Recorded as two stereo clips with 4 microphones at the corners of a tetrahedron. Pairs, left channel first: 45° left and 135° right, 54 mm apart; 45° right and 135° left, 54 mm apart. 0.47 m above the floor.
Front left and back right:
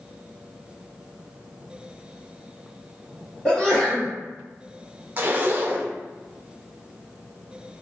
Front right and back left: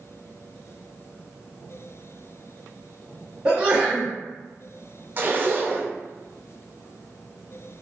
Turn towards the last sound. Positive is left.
turn(degrees=180)